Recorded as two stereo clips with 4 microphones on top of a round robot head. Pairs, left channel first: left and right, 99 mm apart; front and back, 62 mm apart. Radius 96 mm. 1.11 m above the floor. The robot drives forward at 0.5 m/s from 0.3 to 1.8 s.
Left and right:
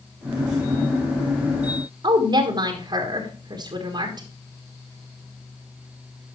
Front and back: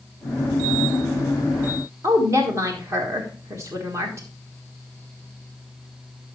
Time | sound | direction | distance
2.0 | a woman speaking | 140° right | 1.5 m